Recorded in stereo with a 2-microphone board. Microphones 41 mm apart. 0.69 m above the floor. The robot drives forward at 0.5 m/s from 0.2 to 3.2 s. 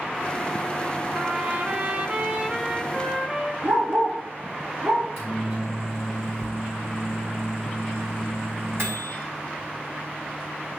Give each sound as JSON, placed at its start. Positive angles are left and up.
{"t": 1.1, "sound": "a trumpet", "side_deg": -35, "distance_m": 0.6}
{"t": 3.6, "sound": "a dog barking", "side_deg": -90, "distance_m": 3.0}
{"t": 5.0, "sound": "a microwave", "side_deg": -75, "distance_m": 4.5}